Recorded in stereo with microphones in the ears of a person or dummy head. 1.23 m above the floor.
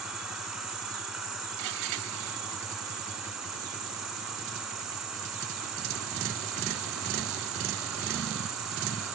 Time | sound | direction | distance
0.0 | an insect | centre (ahead or behind) | 1.8 m